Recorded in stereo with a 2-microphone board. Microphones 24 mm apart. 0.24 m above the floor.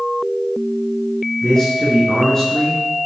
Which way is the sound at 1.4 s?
20° left (ahead or behind).